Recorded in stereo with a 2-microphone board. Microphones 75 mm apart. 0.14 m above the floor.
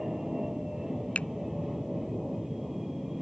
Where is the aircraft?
5° right (ahead or behind); by 3.2 s centre (ahead or behind).